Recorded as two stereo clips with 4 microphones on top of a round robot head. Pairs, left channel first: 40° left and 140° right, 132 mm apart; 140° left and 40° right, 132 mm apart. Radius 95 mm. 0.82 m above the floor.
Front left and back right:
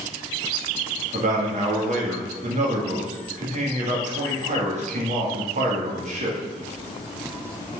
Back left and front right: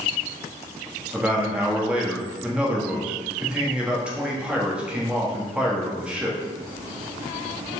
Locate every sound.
1.1 s a man speaking: 125° right, 1.8 m